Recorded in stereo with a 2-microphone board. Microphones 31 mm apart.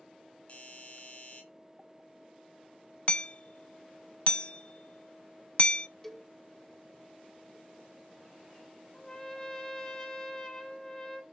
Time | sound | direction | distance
0.5 | a doorbell | 40° left (ahead or behind) | 6 m
3.1 | hammering | 40° left (ahead or behind) | 0.6 m
6.0 | a cowbell | 5° left (ahead or behind) | 1.4 m
8.9 | a trumpet | 20° left (ahead or behind) | 3 m